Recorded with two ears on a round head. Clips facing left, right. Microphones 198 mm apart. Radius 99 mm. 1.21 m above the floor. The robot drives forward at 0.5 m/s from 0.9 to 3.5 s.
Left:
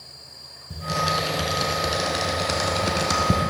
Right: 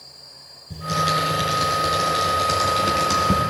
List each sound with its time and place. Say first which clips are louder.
0.7 s typing on a keyboard: right 1 dB; 5° left (ahead or behind), 3.5 m